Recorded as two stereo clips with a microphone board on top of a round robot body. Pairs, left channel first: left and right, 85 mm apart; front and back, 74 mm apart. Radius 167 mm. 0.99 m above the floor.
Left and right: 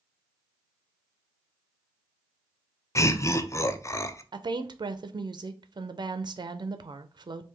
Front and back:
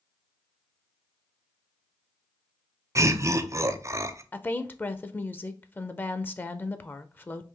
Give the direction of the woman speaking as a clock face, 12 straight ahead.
2 o'clock.